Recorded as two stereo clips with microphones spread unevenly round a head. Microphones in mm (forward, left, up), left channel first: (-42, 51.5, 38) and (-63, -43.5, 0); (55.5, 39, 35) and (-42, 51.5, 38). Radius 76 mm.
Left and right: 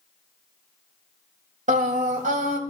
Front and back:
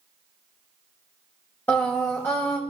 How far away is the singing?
About 2.0 m.